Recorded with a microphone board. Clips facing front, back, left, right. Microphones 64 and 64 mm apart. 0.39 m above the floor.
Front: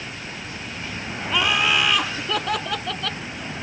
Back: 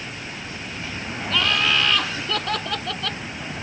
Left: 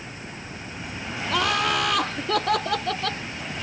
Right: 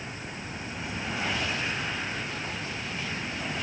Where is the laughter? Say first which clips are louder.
Front 1 dB, left 8 dB; 75° left; by 3.2 s 90° left.